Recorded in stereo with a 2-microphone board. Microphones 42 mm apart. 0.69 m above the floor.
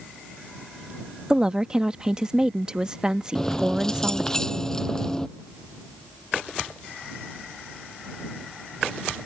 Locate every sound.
1.3 s a woman speaking: 20° right (ahead or behind)
3.4 s keys jangling: 15° left (ahead or behind)